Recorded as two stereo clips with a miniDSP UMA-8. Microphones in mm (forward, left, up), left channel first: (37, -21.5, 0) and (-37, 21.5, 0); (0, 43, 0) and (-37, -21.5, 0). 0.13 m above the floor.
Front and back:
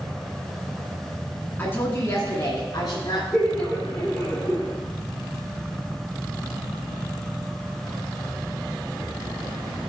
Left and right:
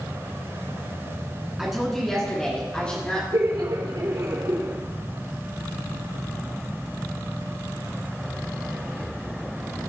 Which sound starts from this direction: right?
Laughter, at 3.3 s.